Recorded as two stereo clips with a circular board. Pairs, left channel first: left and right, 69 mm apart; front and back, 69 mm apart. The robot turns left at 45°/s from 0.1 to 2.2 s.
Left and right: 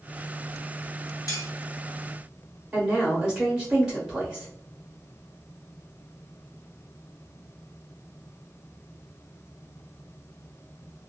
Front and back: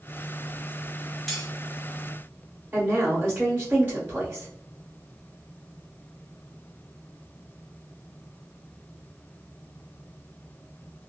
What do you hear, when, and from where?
1.3 s cutlery clinking: 85° left, 0.8 m; by 1.5 s 80° left, 0.8 m
2.7 s a woman speaking: 165° right, 1.1 m